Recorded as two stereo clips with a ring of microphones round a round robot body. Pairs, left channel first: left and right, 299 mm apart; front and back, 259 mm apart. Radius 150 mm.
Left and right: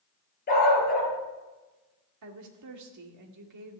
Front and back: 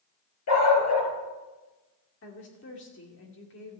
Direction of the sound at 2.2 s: 55° right.